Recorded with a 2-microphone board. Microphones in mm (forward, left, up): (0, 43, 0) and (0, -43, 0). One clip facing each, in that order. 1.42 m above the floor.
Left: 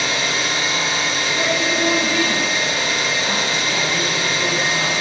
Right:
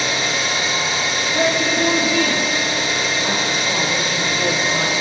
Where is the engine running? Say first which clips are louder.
Even; 20° right (ahead or behind), 1.3 m.